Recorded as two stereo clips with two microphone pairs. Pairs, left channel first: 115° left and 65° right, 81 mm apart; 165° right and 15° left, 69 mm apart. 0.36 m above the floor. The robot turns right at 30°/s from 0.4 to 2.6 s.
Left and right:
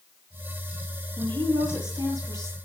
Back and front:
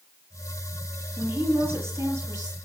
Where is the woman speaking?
55° right, 9 m; by 2.6 s 10° right, 9 m.